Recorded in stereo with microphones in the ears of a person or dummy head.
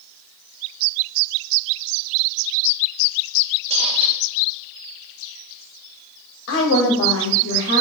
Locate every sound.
3.7 s a squeak: 35° right (ahead or behind), 0.9 m
6.5 s a woman speaking: 75° left (ahead or behind), 5.5 m